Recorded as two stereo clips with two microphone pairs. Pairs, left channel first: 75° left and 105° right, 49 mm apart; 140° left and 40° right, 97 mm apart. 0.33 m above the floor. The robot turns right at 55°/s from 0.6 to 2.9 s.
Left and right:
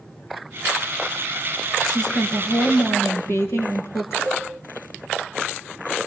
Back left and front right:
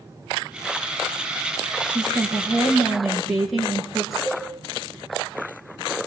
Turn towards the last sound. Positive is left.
turn(degrees=75)